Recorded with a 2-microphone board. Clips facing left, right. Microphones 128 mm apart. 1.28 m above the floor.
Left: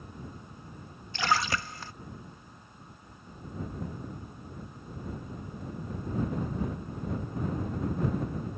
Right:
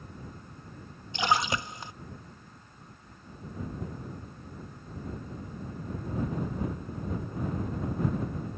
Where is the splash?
20° right (ahead or behind).